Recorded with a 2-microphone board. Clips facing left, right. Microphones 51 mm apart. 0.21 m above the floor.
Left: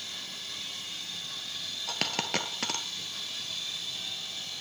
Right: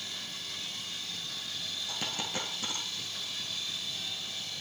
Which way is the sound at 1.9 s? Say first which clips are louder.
Left 6 dB; 70° left (ahead or behind).